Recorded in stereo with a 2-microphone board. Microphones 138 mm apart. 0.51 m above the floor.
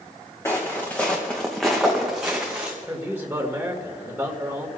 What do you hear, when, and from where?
0.5 s footsteps: 20° left (ahead or behind), 2.5 m; by 2.8 s 10° right (ahead or behind), 2.5 m
2.9 s a man speaking: 15° right (ahead or behind), 2 m